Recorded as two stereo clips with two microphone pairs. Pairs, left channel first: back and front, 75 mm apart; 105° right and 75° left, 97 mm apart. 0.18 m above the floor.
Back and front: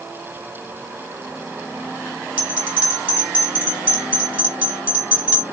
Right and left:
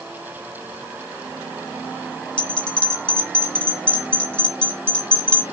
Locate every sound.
2.4 s a bell: 45° right, 1.8 m